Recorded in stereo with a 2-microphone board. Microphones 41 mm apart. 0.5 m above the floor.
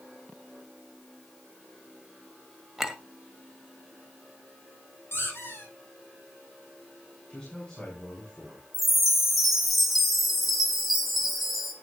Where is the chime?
Centre (ahead or behind), 3.5 m.